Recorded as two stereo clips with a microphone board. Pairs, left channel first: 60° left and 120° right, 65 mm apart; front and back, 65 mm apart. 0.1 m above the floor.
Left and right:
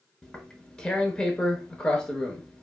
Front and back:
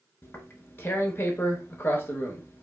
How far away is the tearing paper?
About 0.6 m.